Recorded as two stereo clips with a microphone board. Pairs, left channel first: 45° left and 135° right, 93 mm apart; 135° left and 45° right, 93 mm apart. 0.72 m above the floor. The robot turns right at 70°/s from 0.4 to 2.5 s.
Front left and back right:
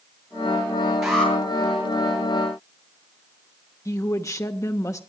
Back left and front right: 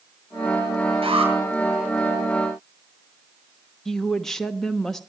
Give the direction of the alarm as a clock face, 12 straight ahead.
2 o'clock.